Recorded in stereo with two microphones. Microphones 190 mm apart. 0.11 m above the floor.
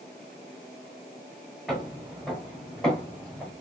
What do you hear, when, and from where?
1.7 s footsteps: centre (ahead or behind), 8 m; by 3.5 s 5° left (ahead or behind), 9.5 m